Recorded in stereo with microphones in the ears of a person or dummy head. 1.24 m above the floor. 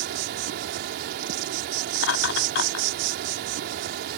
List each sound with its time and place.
0.0 s an insect: 45° right (ahead or behind)
1.9 s laughter: 70° left (ahead or behind)